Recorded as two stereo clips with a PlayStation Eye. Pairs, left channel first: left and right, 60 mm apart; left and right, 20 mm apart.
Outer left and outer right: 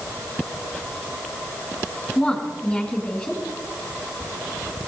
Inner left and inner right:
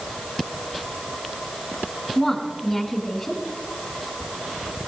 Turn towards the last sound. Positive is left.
turn(degrees=10)  # may be behind; listen again after turning